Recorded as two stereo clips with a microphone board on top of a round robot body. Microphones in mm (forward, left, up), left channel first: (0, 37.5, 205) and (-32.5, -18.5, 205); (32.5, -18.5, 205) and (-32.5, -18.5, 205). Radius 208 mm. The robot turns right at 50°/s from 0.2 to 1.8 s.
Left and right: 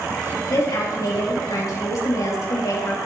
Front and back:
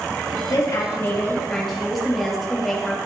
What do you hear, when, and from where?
0.5 s a woman speaking: 25° left, 5.5 m; by 3.0 s 90° left, 5.5 m